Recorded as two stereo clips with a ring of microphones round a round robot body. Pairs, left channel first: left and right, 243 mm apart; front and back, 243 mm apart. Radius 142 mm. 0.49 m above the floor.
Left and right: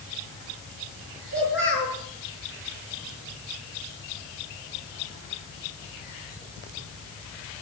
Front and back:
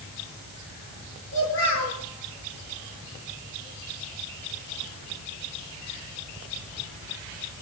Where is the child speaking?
45° left, 7 m.